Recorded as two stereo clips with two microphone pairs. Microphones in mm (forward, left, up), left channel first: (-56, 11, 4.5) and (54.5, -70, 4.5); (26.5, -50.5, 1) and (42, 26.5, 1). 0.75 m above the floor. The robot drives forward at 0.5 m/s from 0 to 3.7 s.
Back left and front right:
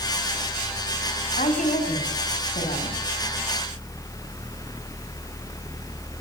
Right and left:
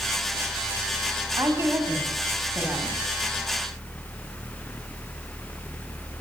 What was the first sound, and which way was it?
A woman speaking, 125° left.